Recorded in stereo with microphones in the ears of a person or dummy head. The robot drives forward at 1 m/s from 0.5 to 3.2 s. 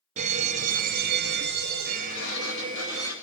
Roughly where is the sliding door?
Left.